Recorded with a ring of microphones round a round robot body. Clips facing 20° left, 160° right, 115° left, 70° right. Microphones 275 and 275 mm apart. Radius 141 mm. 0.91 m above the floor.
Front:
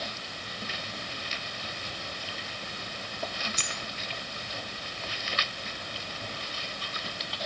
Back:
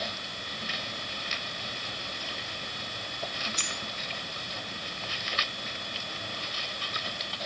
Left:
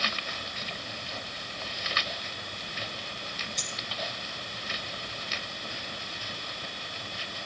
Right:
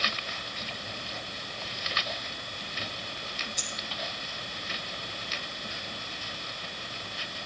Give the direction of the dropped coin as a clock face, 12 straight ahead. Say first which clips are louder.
Even, even; 11 o'clock.